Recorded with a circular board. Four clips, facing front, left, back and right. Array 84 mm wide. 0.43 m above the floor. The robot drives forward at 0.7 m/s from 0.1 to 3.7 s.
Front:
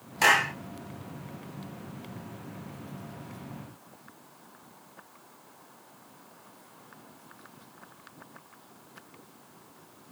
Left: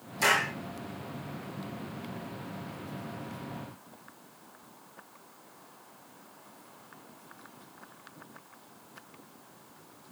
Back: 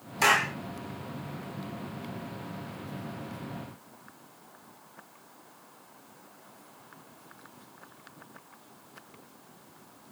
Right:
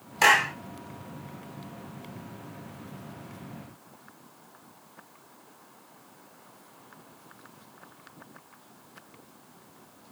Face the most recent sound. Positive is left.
turn(degrees=-115)